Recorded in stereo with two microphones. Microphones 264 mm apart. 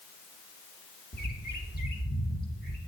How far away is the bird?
About 1.0 m.